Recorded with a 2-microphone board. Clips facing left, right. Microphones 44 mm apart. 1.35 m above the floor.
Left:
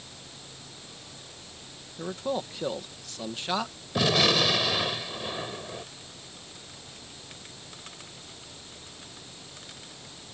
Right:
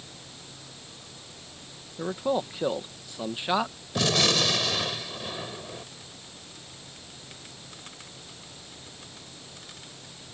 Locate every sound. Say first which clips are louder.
2.0 s a man speaking: right 4 dB; 15° right (ahead or behind)
4.0 s a gunshot: left 1 dB; 10° left (ahead or behind)